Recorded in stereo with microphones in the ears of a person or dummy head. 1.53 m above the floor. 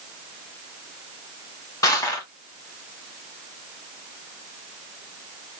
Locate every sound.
1.8 s crushing: 20° left (ahead or behind), 1.7 m